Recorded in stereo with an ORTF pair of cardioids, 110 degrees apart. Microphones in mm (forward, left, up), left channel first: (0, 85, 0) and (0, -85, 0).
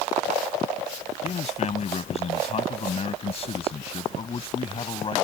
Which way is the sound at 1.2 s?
40° left.